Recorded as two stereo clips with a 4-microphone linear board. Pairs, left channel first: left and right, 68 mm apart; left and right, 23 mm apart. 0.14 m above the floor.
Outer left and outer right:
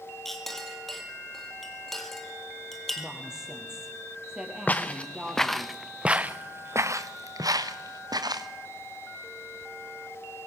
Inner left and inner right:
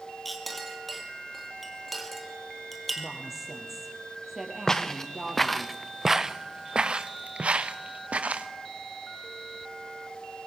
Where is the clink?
5° left (ahead or behind), 2.5 m.